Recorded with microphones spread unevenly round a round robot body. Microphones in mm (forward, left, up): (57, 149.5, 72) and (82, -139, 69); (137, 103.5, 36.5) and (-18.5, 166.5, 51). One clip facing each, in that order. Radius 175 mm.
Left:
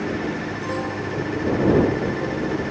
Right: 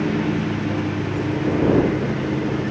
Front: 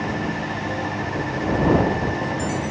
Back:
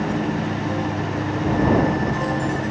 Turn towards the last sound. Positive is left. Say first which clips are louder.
# right 5 dB, back 3 dB
turn(degrees=-135)